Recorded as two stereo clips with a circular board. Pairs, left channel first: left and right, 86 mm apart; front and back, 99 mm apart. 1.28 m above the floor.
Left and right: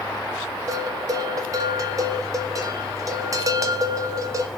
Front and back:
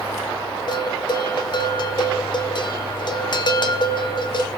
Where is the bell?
40° right, 0.9 m.